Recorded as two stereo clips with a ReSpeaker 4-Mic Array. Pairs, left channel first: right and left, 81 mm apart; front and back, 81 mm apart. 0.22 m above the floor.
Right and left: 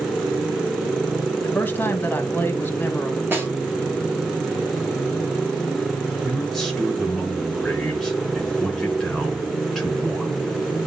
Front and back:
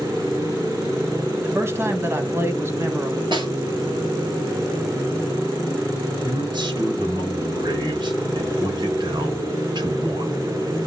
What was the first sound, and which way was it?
A man speaking, 145° right.